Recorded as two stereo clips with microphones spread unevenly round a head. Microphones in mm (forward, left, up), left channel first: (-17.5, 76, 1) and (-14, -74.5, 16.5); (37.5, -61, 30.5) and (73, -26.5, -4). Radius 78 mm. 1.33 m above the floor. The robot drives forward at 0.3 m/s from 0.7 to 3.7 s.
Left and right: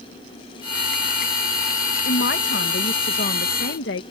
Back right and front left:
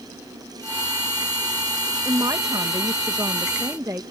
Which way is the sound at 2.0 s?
75° left.